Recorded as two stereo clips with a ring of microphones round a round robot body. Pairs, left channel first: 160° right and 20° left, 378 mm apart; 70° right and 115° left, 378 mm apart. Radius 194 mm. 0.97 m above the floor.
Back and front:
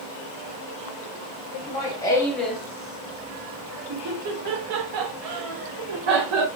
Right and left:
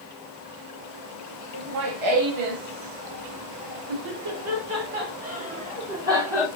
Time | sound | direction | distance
1.5 | laughter | 130° left | 1.6 m